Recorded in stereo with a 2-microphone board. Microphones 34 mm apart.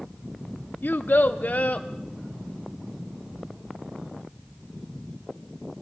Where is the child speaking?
75° left (ahead or behind), 0.8 m; by 1.9 s 50° left (ahead or behind), 1.2 m.